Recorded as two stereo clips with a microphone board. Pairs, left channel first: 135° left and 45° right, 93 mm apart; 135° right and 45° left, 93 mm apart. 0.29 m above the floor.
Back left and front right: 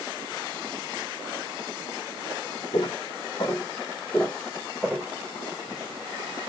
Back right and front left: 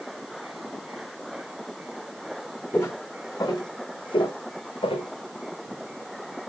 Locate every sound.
2.7 s footsteps: 155° left, 1.1 m; by 5.1 s 125° right, 1.2 m